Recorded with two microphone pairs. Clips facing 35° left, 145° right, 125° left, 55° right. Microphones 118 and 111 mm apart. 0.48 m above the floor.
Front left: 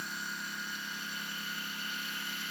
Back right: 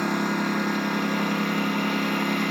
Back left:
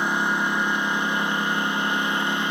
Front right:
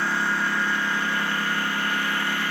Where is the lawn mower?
165° right.